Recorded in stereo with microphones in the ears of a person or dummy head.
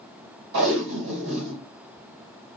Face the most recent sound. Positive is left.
turn(degrees=-75)  # may be behind; listen again after turning